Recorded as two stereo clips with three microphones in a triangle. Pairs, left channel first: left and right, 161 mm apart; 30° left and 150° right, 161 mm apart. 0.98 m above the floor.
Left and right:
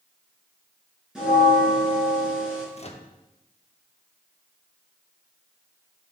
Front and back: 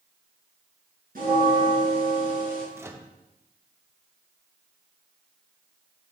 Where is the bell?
175° right, 5 m.